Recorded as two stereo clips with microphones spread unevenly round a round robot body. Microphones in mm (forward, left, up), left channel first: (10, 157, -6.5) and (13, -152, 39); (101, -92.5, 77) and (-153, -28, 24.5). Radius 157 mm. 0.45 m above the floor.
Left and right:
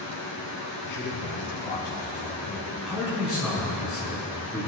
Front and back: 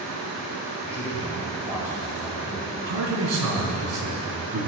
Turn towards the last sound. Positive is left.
turn(degrees=180)